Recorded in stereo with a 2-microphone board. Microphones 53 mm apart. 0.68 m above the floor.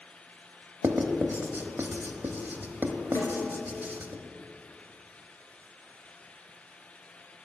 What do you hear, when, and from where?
0.8 s writing: 40° right (ahead or behind), 0.7 m
3.1 s a snare drum: 75° left (ahead or behind), 2 m